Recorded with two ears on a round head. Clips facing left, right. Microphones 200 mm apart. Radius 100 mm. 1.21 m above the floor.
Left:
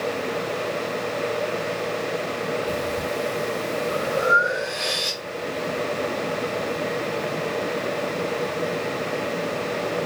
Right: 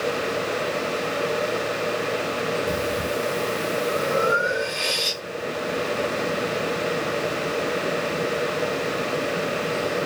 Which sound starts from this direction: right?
Breathing, at 2.7 s.